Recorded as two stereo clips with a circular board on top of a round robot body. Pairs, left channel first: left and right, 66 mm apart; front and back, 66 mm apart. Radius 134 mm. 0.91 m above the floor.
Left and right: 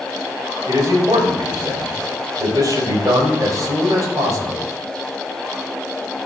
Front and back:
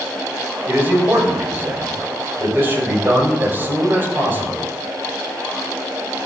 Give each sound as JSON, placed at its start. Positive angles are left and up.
{"t": 0.7, "sound": "a man speaking", "azimuth_deg": -120, "distance_m": 5.5}